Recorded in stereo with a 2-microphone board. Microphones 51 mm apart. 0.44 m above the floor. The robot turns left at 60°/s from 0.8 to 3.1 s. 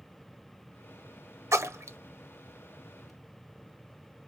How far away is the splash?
About 0.5 m.